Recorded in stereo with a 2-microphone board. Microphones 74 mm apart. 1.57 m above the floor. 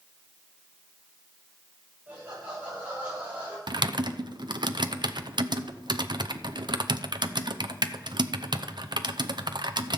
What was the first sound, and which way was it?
Laughter, 30° right (ahead or behind).